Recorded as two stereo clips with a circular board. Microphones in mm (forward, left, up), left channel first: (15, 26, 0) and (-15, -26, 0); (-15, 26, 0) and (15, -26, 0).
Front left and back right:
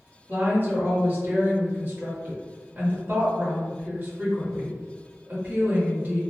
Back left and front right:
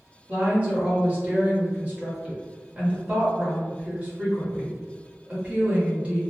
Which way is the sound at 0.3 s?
100° right.